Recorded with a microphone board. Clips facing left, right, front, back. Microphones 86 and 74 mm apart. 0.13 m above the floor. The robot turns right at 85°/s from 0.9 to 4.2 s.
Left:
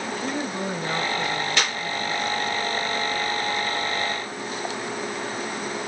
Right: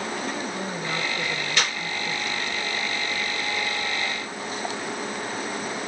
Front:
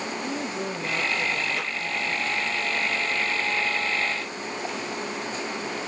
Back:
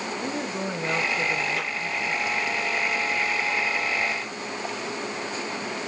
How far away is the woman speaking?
About 5.5 m.